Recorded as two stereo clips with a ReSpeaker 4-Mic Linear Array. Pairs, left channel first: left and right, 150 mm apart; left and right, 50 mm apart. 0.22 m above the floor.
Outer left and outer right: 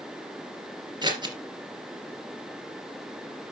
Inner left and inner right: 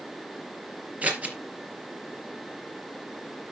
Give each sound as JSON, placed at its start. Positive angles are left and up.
{"t": 1.0, "sound": "scissors", "side_deg": -30, "distance_m": 3.0}